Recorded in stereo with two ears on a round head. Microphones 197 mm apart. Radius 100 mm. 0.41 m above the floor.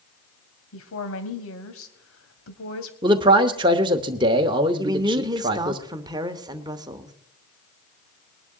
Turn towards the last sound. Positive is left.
turn(degrees=-20)  # may be behind; listen again after turning